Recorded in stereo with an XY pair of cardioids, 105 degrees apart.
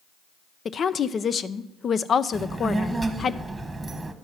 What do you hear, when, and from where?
0.7 s a woman speaking: 45° left, 0.6 m
2.3 s a child speaking: 15° right, 1.2 m